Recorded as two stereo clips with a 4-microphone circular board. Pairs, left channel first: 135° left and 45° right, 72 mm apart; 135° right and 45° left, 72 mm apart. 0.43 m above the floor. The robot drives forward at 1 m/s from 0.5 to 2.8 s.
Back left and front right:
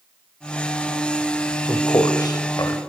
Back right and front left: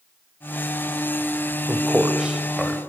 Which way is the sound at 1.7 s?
110° left.